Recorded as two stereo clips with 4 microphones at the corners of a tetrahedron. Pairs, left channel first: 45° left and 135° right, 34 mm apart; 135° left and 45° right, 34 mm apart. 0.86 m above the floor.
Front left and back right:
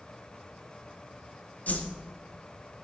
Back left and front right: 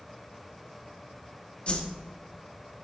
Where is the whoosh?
85° left, 0.6 m.